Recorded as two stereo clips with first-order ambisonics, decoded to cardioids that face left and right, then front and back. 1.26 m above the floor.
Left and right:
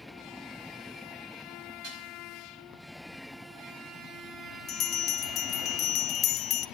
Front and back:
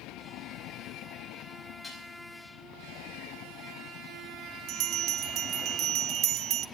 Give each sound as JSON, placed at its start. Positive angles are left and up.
{"t": 1.8, "sound": "dishes clattering", "azimuth_deg": -85, "distance_m": 5.5}
{"t": 4.7, "sound": "a bell", "azimuth_deg": 140, "distance_m": 0.6}